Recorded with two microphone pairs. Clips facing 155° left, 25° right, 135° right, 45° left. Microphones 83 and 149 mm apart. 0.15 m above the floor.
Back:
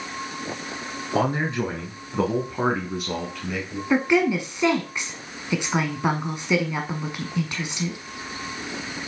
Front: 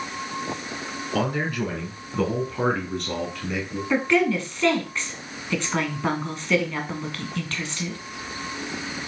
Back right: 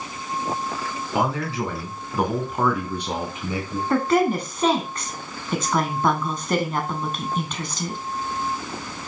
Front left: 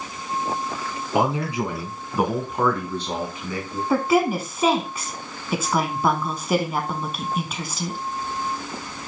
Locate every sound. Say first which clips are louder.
1.1 s a man speaking: back 2 dB, front left 2 dB; 105° left, 2 m; by 3.8 s 110° right, 1.8 m
3.9 s a woman speaking: back 1 dB, even; 115° left, 1.1 m